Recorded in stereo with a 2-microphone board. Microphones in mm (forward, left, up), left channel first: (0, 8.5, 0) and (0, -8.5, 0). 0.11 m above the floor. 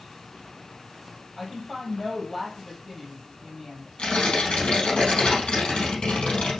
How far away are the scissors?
I don't hear scissors.